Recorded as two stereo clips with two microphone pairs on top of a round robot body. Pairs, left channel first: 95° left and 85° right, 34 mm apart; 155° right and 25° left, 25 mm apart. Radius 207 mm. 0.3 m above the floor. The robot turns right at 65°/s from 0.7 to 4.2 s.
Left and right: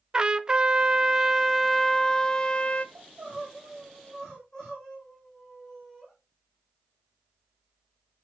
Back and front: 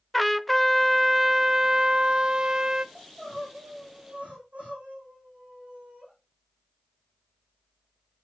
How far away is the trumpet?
About 0.9 m.